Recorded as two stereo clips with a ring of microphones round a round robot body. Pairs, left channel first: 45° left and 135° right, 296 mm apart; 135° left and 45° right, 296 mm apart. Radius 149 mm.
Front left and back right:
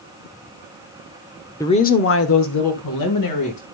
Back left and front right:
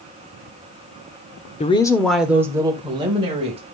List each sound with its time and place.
1.6 s a woman speaking: 110° left, 0.8 m; by 3.6 s 25° left, 2 m